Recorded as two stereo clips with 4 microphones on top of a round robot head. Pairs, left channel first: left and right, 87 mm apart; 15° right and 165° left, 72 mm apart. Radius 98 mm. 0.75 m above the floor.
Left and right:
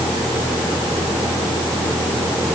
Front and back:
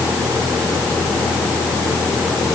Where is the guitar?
No guitar in this recording.